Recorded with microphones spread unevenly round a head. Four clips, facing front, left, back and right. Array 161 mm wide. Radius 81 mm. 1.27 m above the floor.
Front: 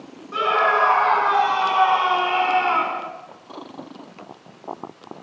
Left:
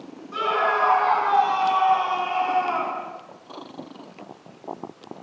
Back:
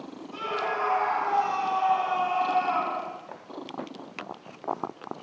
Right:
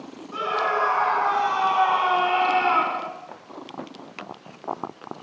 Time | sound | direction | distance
0.3 | a scream | straight ahead | 5.5 m